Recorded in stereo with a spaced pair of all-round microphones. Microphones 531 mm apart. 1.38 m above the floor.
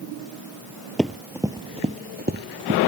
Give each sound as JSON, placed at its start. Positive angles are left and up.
{"t": 1.0, "sound": "running footsteps", "side_deg": 0}